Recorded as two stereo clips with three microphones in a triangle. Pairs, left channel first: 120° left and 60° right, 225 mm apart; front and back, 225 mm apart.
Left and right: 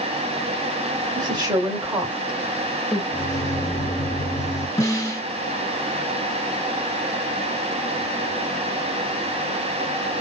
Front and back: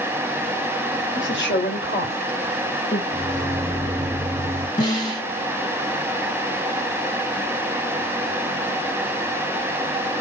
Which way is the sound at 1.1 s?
5° left.